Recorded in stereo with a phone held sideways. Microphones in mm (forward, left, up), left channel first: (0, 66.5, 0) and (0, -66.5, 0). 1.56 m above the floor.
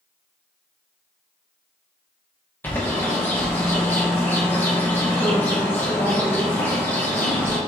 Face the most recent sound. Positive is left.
turn(degrees=15)  # may be behind; listen again after turning